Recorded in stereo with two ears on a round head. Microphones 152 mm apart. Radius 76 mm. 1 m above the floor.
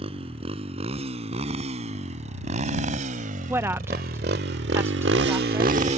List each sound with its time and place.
0.0 s a motorcycle: 35° right (ahead or behind)
3.5 s a woman speaking: 15° right (ahead or behind)